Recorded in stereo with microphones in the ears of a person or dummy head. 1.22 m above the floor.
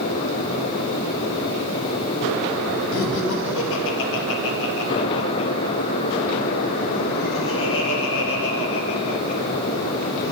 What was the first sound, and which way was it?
Laughter, 70° left (ahead or behind).